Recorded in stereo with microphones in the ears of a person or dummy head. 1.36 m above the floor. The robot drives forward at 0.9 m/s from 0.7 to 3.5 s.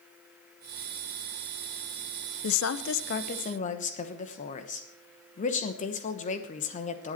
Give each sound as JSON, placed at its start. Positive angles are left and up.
{"t": 2.4, "sound": "a woman speaking", "side_deg": 75, "distance_m": 0.8}